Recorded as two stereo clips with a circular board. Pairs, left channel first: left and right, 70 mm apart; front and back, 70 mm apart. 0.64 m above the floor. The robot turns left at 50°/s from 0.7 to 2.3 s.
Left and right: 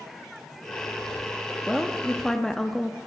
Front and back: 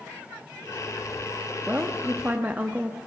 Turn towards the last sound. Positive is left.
turn(degrees=160)